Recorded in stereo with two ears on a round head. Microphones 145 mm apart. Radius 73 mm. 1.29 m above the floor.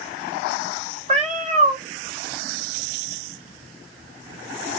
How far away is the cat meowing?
About 1.8 m.